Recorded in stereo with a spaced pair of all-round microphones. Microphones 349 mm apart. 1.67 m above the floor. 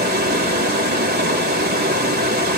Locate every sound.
0.0 s running water: 25° right (ahead or behind), 1.8 m